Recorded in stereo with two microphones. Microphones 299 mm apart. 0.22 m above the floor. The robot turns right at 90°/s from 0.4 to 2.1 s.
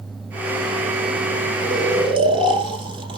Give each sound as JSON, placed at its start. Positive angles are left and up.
{"t": 1.6, "sound": "snoring", "azimuth_deg": -60, "distance_m": 1.4}